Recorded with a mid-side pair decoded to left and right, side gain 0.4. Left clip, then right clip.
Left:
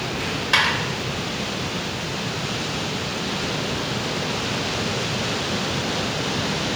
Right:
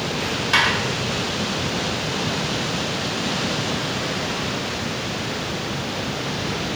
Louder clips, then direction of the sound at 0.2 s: Right 1 dB; 15° left.